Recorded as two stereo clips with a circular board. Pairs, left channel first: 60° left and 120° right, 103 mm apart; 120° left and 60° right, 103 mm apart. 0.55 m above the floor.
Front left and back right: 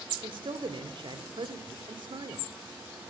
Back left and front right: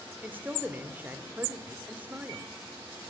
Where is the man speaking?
130° right, 1.7 m.